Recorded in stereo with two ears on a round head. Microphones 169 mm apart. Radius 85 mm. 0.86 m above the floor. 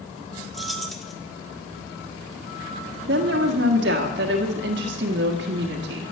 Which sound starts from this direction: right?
A woman speaking, at 3.1 s.